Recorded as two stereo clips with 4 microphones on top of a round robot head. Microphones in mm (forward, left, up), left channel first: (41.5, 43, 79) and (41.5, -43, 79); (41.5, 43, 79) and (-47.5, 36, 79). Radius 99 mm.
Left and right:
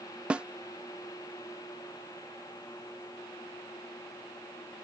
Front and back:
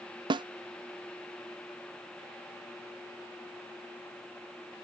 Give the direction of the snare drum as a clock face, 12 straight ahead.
6 o'clock.